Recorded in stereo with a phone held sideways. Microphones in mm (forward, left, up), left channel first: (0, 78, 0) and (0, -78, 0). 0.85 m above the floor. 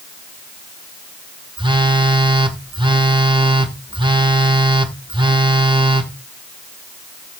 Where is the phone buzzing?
30° right (ahead or behind), 1.2 m.